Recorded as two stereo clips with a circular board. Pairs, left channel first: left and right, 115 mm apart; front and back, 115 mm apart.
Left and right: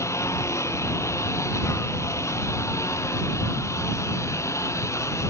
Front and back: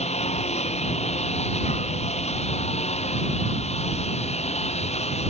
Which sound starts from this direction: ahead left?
A lawn mower, at 0.0 s.